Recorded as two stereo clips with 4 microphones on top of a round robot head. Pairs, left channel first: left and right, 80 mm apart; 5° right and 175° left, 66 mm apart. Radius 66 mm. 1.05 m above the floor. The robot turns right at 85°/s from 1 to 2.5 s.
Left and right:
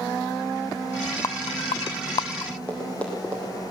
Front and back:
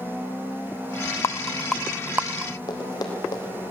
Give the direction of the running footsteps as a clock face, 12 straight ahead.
12 o'clock.